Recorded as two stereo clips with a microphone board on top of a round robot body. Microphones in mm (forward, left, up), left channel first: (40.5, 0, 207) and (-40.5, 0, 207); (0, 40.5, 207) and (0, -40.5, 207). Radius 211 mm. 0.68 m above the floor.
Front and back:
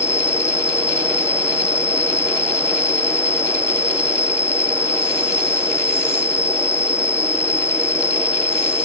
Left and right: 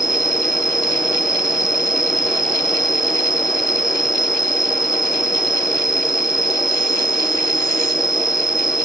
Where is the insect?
60° right.